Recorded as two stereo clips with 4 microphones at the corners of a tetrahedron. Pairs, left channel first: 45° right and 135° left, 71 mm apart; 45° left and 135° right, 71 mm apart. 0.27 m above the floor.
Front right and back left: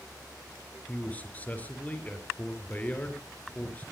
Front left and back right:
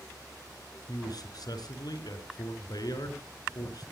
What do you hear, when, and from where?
0.9 s a man speaking: 25° left, 4.5 m